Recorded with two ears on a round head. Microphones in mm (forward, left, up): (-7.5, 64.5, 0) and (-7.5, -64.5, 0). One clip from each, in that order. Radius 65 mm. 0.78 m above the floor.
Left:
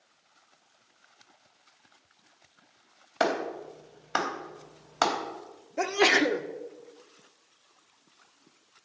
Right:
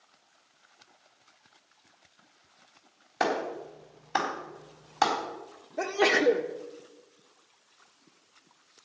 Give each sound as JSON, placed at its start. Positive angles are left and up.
{"t": 3.2, "sound": "a clap", "side_deg": 35, "distance_m": 3.5}
{"t": 5.8, "sound": "a sneeze", "side_deg": 55, "distance_m": 1.4}